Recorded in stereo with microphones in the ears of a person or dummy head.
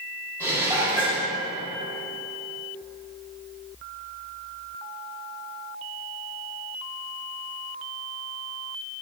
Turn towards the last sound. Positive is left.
turn(degrees=-20)  # may be behind; listen again after turning